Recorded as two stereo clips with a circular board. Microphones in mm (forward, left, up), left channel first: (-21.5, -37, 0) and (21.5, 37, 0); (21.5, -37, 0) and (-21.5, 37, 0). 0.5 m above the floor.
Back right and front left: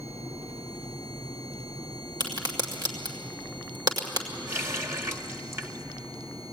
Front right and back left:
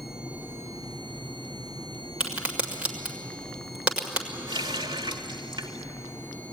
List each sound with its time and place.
2.2 s a crack: 45° left, 2.0 m
4.5 s a running tap: 115° left, 1.2 m